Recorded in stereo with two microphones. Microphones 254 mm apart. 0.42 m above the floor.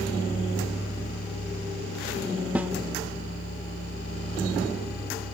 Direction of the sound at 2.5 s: 5° right (ahead or behind).